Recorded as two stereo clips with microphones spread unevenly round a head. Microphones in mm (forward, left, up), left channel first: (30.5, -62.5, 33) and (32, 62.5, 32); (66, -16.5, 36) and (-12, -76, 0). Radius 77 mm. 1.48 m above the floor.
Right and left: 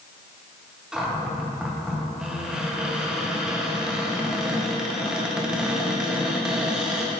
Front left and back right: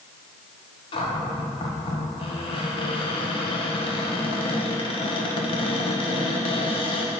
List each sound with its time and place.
0.9 s a cupboard door: 5° left, 1.2 m